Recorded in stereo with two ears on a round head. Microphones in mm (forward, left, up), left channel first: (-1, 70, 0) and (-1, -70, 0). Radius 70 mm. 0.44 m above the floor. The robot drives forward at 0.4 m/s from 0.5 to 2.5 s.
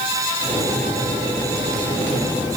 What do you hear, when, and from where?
Only background noise.